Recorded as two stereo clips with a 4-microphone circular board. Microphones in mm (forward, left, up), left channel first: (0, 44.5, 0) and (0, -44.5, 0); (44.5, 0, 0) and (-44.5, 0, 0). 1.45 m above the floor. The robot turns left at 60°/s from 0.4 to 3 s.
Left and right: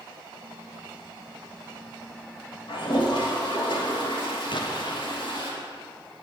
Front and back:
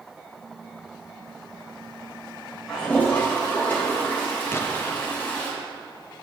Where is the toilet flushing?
90° left, 3.5 m; by 5.5 s 70° left, 3.5 m.